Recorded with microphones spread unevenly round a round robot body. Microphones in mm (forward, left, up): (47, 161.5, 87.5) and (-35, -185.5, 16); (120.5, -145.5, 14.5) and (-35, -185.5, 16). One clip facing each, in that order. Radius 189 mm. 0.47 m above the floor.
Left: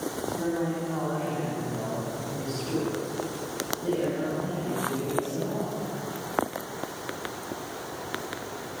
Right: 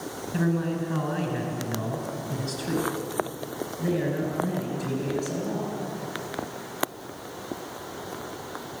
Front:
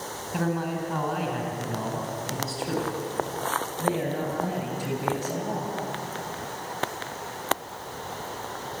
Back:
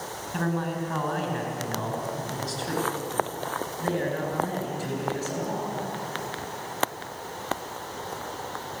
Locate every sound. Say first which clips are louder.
0.3 s a man speaking: right 4 dB, front 1 dB; 65° right, 7 m; by 5.7 s 55° right, 11 m